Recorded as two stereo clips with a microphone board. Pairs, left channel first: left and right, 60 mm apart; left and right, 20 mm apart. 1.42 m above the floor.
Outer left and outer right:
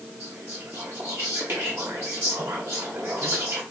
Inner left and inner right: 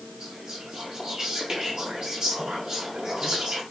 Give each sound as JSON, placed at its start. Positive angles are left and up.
{"t": 0.2, "sound": "whispering", "side_deg": -45, "distance_m": 0.5}